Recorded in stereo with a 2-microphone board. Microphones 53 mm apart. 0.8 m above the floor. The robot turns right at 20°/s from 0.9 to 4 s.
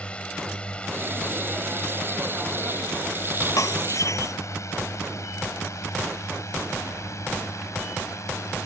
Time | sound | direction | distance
0.0 | a drone | 20° left (ahead or behind) | ?
3.6 | breaking glass | 85° left | ?